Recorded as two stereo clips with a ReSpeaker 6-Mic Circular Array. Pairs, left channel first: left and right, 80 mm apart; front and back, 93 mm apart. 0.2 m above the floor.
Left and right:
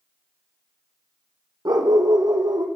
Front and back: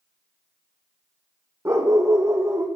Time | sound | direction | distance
1.6 | a dog barking | 125° right | 2.5 m